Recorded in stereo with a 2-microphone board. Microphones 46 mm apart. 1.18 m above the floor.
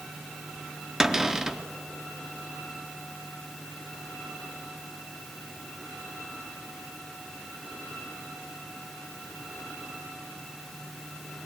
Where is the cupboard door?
10° right (ahead or behind), 0.7 m.